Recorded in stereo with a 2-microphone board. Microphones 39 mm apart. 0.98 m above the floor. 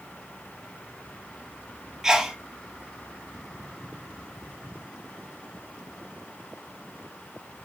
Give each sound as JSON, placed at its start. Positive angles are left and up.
{"t": 2.0, "sound": "a sneeze", "side_deg": -10, "distance_m": 1.4}